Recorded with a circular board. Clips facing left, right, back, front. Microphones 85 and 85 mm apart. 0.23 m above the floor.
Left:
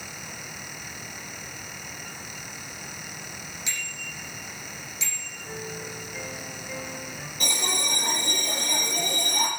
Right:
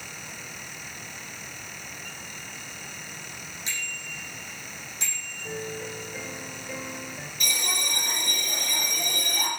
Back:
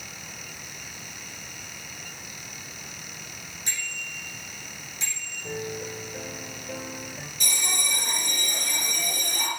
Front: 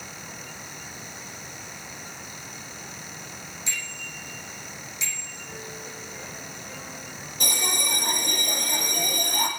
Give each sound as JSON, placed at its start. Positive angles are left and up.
{"t": 3.7, "sound": "a bicycle bell", "azimuth_deg": -140, "distance_m": 7.5}
{"t": 5.4, "sound": "a piano", "azimuth_deg": -155, "distance_m": 3.5}
{"t": 7.4, "sound": "a bell", "azimuth_deg": 40, "distance_m": 5.0}